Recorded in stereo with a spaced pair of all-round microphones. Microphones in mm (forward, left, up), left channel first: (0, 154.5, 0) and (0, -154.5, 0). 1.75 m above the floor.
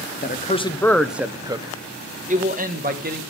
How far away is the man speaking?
About 0.6 m.